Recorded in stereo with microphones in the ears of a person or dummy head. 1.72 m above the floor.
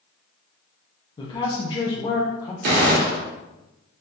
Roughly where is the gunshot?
Right.